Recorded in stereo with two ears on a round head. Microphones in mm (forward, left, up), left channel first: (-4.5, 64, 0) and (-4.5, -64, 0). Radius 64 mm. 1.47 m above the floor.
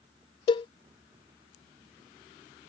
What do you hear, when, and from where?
0.5 s a cowbell: 30° left (ahead or behind)